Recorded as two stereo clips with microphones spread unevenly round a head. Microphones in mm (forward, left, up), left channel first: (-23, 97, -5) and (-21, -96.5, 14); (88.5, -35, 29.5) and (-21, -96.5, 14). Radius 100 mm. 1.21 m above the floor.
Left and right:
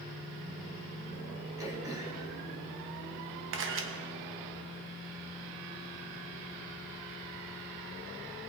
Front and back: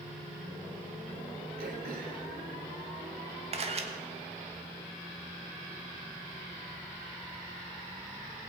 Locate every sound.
1.6 s throat clearing: 165° right, 1.7 m
3.5 s a camera shutter: 115° right, 1.3 m